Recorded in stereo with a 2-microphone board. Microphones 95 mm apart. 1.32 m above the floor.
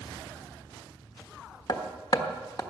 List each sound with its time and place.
1.7 s hammering: 45° left (ahead or behind), 1.3 m